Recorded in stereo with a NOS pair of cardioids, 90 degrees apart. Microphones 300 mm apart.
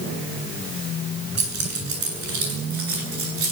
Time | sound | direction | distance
1.4 | keys jangling | 60° right | 9 m